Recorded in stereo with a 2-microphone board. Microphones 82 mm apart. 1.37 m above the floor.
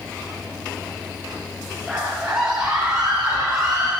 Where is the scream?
5° right (ahead or behind), 7 m; by 3.9 s 20° right (ahead or behind), 9 m.